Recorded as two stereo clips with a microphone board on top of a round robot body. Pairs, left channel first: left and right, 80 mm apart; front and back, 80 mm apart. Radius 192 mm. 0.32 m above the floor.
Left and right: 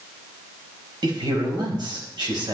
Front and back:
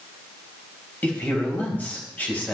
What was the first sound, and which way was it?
A man speaking, 70° right.